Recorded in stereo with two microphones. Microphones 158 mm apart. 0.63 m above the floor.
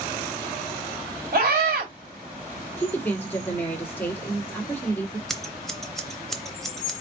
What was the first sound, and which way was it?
A scream, 70° right (ahead or behind).